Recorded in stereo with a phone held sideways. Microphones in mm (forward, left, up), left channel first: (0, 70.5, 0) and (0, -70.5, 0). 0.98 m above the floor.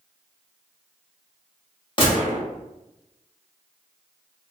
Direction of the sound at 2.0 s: 35° left (ahead or behind).